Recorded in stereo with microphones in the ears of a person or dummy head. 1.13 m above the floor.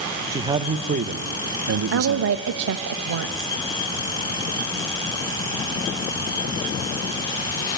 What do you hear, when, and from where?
0.3 s a man speaking: 20° right (ahead or behind), 1.0 m; by 2.5 s 70° right (ahead or behind), 1.1 m
1.9 s a woman speaking: 70° right (ahead or behind), 0.8 m